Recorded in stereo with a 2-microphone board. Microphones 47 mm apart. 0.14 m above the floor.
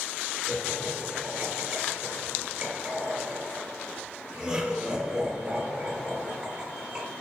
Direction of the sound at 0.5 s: 10° right (ahead or behind).